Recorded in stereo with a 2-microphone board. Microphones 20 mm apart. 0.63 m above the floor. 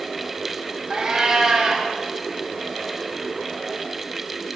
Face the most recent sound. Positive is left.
turn(degrees=-40)  # may be behind; listen again after turning